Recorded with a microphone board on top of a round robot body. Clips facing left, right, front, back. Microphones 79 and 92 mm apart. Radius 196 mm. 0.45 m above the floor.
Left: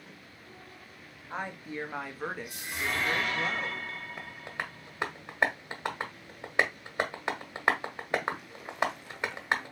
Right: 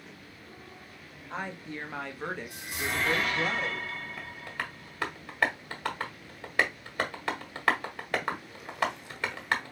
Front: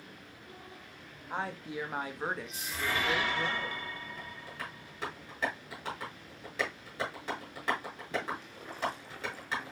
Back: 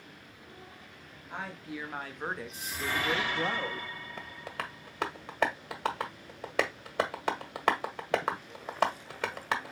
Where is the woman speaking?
15° left, 1.3 m; by 3.9 s 170° right, 1.5 m.